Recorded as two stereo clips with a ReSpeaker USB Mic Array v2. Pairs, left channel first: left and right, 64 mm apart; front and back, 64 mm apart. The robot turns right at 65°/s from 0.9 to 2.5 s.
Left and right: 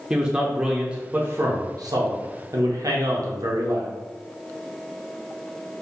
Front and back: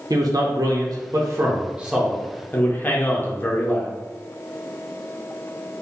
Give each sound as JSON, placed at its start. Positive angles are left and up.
{"t": 0.1, "sound": "a man speaking", "azimuth_deg": -165, "distance_m": 0.7}